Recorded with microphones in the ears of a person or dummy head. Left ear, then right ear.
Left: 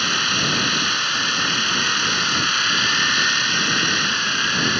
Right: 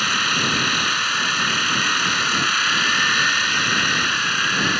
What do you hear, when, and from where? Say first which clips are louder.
0.0 s a machine running: even; 20° right (ahead or behind)